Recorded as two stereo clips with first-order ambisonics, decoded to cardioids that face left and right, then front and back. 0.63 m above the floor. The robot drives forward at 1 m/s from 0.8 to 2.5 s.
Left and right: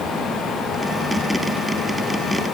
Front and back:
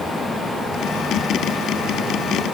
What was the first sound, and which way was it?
Only background noise.